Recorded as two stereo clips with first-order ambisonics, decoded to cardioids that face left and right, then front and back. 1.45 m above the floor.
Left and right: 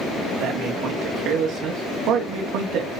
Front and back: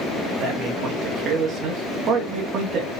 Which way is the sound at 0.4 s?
130° right.